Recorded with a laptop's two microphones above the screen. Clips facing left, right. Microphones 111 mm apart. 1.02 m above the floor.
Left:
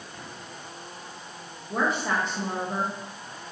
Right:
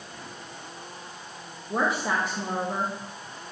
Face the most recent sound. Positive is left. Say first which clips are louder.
# even
turn(degrees=-10)  # may be behind; listen again after turning